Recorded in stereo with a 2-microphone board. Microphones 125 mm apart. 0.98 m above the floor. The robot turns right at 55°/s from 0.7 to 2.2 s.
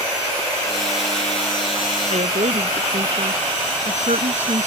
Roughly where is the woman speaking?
Right.